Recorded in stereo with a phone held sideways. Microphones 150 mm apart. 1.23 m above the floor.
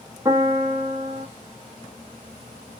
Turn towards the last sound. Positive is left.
turn(degrees=-20)  # may be behind; listen again after turning